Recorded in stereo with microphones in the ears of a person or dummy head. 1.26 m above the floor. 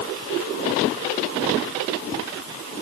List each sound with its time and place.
Only background noise.